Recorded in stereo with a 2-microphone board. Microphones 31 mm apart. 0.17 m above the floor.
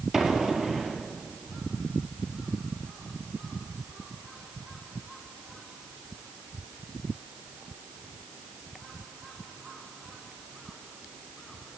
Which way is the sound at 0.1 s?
5° right (ahead or behind).